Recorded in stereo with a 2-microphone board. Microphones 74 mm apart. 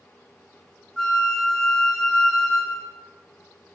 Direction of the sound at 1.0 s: 5° left (ahead or behind).